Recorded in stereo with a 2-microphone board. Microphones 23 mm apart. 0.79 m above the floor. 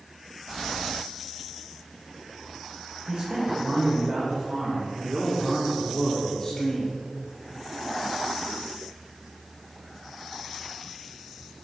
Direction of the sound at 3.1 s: 45° right (ahead or behind).